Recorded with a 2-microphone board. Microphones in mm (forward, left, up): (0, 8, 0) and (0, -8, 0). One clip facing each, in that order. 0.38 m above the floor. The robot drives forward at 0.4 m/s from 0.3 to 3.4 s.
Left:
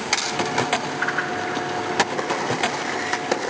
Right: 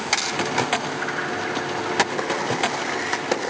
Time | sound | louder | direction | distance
1.0 | a whoosh | left 2 dB | 25° left (ahead or behind) | 1.5 m